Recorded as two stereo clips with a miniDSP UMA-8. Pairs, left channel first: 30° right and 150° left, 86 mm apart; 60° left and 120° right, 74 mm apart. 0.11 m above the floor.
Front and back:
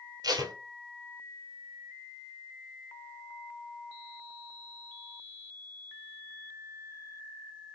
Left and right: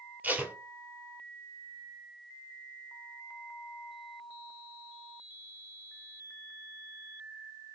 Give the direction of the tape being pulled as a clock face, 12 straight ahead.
6 o'clock.